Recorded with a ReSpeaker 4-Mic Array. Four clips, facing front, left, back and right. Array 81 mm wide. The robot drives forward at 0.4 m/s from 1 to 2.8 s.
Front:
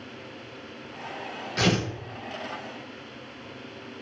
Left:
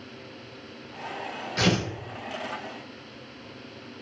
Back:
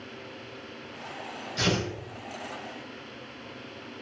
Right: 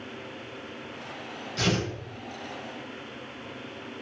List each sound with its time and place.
1.6 s tearing paper: 40° left, 1.2 m; by 1.9 s 45° left, 1.1 m